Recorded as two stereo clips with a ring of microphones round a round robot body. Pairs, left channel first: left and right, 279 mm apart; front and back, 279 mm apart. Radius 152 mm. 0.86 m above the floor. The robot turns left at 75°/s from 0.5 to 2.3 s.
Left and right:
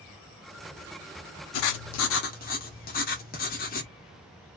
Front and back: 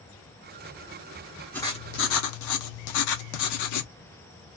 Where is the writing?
85° left, 0.5 m; by 3.9 s 30° left, 0.5 m.